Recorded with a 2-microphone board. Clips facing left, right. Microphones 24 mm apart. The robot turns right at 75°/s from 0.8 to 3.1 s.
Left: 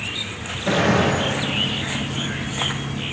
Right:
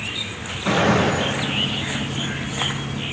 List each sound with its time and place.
0.7 s a gunshot: 70° right (ahead or behind), 3.5 m; by 1.2 s 45° right (ahead or behind), 3.5 m